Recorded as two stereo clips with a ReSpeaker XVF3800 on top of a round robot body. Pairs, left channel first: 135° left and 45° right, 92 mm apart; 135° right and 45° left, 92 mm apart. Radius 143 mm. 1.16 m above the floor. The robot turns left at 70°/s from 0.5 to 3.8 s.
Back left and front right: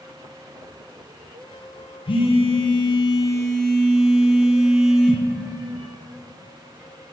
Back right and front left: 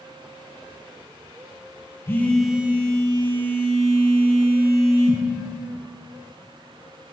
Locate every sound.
2.1 s a phone buzzing: 160° left, 1.0 m; by 5.2 s 40° left, 1.0 m